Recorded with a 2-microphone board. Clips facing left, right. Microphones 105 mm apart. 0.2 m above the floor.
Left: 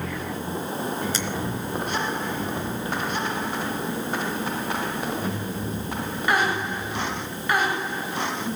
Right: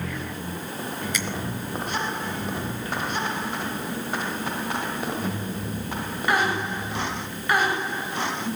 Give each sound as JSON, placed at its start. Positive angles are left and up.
{"t": 1.1, "sound": "a finger snap", "side_deg": 30, "distance_m": 1.8}